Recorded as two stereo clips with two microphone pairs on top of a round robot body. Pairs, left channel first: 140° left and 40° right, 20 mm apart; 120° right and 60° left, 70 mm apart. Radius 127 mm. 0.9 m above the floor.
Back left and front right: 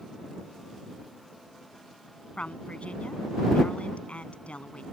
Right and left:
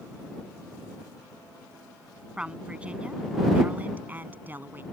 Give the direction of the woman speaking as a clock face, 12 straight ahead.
7 o'clock.